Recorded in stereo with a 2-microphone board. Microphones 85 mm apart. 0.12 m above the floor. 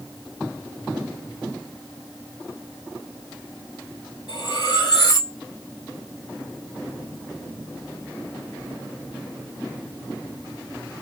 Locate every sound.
4.3 s cutlery clinking: 55° left (ahead or behind), 1.5 m